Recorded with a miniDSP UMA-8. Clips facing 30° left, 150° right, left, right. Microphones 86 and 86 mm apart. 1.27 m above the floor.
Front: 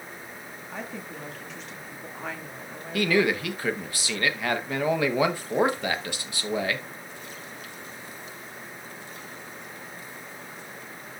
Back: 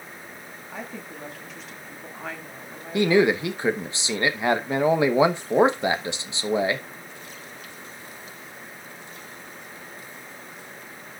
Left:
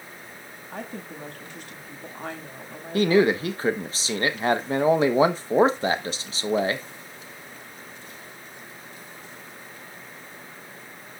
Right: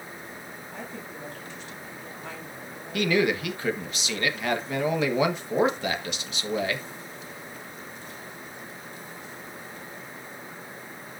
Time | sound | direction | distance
0.7 | a woman speaking | 120° left | 2 m
2.9 | a man speaking | 145° left | 1.0 m